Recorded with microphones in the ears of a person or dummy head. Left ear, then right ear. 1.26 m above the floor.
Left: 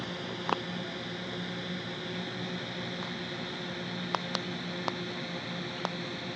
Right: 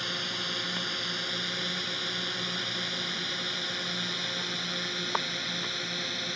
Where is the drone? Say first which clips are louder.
Right 5 dB; 55° right (ahead or behind); by 6.4 s 50° right (ahead or behind).